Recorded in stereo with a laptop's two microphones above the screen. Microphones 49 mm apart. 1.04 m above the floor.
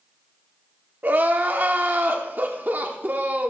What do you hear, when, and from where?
1.0 s crying: 40° right (ahead or behind), 1.1 m